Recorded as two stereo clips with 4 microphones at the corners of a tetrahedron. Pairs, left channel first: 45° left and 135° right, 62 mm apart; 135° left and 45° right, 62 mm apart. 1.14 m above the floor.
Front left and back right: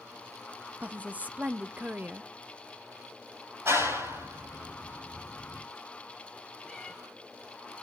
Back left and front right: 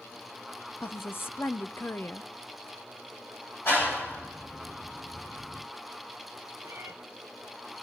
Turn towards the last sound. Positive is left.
turn(degrees=-30)